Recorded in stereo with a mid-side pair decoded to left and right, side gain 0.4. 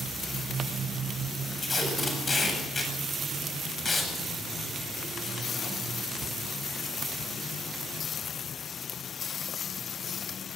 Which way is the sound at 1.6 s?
35° left.